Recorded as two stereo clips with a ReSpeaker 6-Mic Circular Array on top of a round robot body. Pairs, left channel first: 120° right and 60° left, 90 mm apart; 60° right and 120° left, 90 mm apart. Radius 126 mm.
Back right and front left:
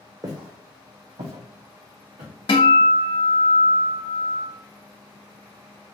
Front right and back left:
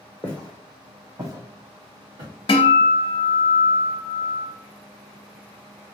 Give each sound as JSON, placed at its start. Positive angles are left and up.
{"t": 0.2, "sound": "footsteps", "azimuth_deg": 10, "distance_m": 0.9}
{"t": 2.5, "sound": "a guitar", "azimuth_deg": -90, "distance_m": 0.5}